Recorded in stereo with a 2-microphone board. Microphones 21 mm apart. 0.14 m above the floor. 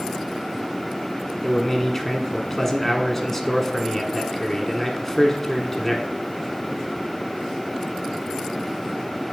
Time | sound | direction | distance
1.4 | a man speaking | 15° left (ahead or behind) | 1.0 m